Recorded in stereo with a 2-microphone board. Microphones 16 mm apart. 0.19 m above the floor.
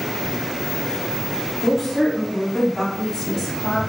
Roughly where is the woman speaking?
Centre.